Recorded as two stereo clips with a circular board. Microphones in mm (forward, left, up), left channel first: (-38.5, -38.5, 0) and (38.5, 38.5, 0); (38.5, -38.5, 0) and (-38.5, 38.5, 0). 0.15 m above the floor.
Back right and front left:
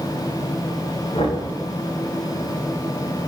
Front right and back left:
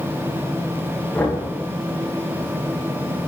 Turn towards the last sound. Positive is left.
turn(degrees=-115)